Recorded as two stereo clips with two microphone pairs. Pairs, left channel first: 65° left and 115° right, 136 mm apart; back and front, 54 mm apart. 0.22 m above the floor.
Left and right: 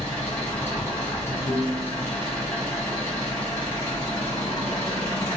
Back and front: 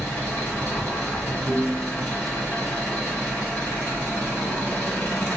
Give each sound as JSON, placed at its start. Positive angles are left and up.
{"t": 0.0, "sound": "an engine running", "azimuth_deg": 125, "distance_m": 1.4}
{"t": 1.4, "sound": "a piano", "azimuth_deg": 100, "distance_m": 1.9}